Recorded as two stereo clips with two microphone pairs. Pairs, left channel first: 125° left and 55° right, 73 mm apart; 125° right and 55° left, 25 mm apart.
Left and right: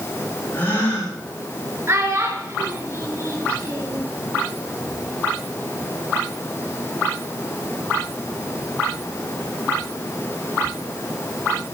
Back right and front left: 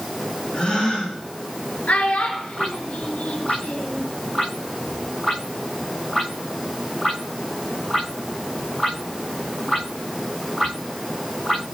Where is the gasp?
Straight behind, 6.5 m.